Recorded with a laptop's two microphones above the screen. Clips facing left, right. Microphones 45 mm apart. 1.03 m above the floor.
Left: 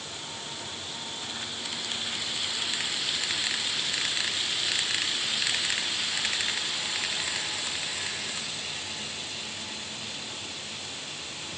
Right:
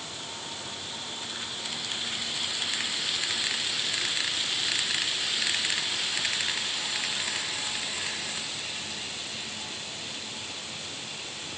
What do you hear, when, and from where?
Only background noise.